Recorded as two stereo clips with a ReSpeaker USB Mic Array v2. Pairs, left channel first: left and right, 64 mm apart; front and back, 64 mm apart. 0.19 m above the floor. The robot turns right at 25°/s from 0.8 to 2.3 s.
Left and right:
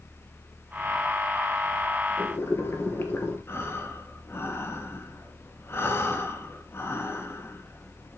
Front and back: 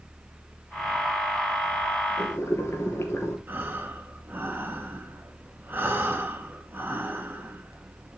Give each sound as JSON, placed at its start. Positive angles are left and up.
{"t": 2.2, "sound": "boiling", "azimuth_deg": 40, "distance_m": 2.5}
{"t": 3.5, "sound": "breathing", "azimuth_deg": 130, "distance_m": 2.0}